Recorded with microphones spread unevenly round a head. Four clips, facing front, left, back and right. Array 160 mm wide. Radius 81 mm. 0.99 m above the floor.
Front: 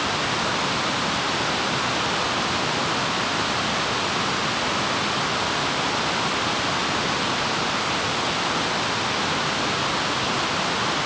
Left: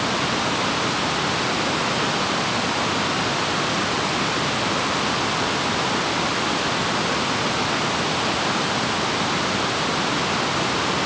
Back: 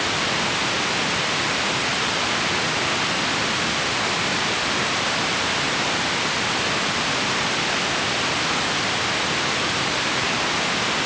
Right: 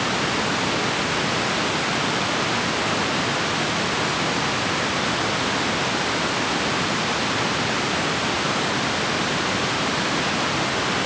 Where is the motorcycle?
No motorcycle in this recording.